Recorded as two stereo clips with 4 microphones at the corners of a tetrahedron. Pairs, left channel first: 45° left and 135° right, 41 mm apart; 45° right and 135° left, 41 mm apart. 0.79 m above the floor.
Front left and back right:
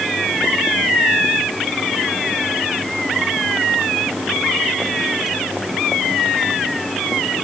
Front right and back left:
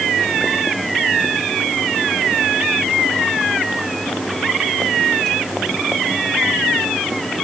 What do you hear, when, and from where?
Only background noise.